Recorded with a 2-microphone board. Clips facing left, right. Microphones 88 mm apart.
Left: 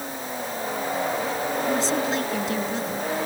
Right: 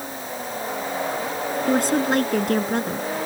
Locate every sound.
1.7 s a woman speaking: 55° right (ahead or behind)